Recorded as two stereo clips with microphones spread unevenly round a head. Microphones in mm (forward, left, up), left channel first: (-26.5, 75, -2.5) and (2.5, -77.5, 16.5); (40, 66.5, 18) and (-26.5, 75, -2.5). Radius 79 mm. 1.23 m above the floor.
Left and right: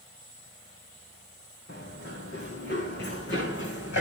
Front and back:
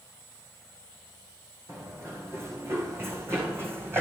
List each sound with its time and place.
1.7 s running footsteps: 120° left, 5 m; by 4.0 s 110° left, 3.5 m